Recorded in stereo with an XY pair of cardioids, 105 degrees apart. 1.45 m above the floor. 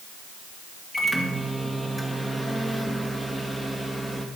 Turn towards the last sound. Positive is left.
turn(degrees=5)